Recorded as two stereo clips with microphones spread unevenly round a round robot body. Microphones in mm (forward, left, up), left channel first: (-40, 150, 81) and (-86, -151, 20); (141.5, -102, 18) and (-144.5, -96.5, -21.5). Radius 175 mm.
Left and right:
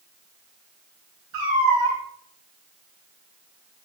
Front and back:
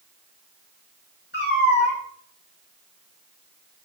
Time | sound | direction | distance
1.3 | a cat meowing | 50° right | 6 m